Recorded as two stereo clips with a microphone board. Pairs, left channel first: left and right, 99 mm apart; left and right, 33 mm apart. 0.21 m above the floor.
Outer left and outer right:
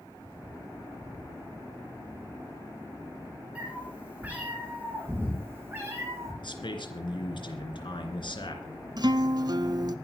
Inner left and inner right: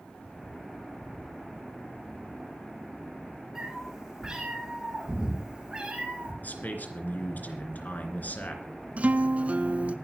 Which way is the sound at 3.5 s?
15° right (ahead or behind).